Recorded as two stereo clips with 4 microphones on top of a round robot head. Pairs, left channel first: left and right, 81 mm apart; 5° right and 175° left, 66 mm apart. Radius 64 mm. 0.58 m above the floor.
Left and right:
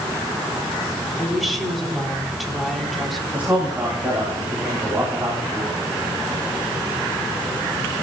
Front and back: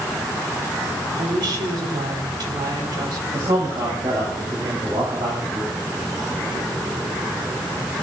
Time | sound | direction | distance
1.2 | a woman speaking | straight behind | 3.5 m
3.3 | a man speaking | 160° right | 3.5 m